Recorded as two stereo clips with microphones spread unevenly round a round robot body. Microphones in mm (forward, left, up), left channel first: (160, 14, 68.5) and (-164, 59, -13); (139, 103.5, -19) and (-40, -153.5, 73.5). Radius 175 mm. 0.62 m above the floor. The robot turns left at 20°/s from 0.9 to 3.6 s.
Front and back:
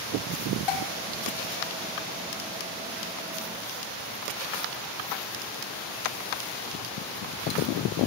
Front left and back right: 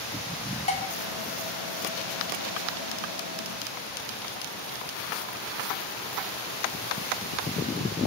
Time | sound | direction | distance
0.7 | dishes clattering | 15° right | 3 m